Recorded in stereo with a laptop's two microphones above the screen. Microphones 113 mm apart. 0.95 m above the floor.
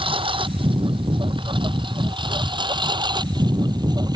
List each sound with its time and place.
0.0 s a lawn mower: 55° right (ahead or behind); by 4.2 s 40° right (ahead or behind)